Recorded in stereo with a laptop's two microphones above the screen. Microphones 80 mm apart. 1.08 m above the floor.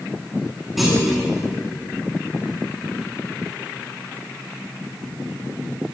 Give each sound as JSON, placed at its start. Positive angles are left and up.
{"t": 0.8, "sound": "a clunk", "side_deg": 0, "distance_m": 1.9}